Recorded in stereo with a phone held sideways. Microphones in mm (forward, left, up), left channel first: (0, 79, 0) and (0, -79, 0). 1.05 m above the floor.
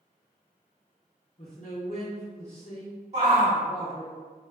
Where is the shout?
50° right (ahead or behind), 1.6 m.